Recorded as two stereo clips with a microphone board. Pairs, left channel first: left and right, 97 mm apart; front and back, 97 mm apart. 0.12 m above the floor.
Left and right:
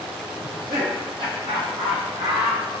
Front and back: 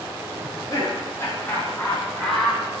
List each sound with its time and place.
0.4 s laughter: 45° right, 4.5 m; by 2.6 s 95° right, 4.5 m